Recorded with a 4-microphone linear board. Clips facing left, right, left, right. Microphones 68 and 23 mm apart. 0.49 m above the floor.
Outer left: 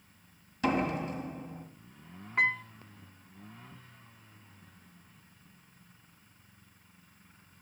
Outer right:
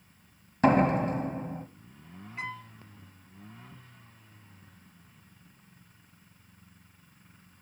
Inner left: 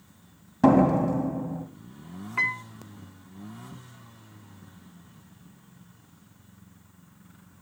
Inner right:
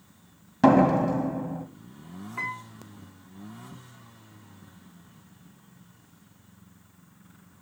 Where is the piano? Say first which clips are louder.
Outer left 10 dB, inner left 7 dB; 60° left (ahead or behind), 1.3 m.